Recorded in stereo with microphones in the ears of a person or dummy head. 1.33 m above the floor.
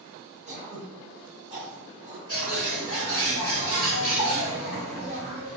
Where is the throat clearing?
30° right (ahead or behind), 1.4 m.